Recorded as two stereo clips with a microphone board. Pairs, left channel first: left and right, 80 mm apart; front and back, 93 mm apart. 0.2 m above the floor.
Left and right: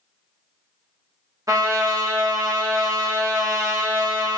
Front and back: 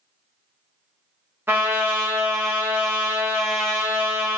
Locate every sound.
1.5 s a trumpet: 120° right, 0.9 m